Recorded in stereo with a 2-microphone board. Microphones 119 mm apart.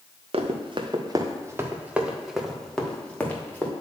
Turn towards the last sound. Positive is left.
turn(degrees=15)  # may be behind; listen again after turning